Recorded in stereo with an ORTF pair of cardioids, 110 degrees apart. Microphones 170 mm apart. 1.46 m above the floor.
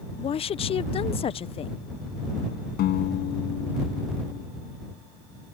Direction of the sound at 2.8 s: 65° left.